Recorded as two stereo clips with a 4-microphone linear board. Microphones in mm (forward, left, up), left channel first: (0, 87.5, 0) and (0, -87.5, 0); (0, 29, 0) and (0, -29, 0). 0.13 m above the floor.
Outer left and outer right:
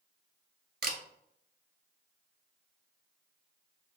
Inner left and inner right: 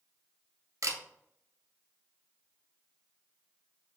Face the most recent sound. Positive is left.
turn(degrees=-65)  # may be behind; listen again after turning